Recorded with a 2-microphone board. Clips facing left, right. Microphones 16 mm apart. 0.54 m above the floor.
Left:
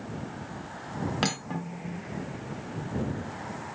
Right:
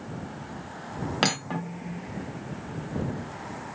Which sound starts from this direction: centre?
Cutlery clinking, at 1.2 s.